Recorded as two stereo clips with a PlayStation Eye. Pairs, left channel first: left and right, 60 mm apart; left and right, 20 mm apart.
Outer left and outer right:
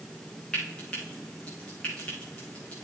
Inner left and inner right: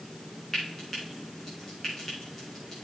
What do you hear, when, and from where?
0.5 s frying: 20° left (ahead or behind), 6 m